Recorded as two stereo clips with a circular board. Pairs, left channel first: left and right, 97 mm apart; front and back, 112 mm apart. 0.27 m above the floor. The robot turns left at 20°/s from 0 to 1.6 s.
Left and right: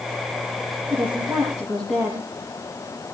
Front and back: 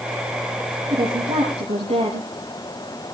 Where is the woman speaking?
145° right, 6.5 m; by 2.3 s 160° right, 6.5 m.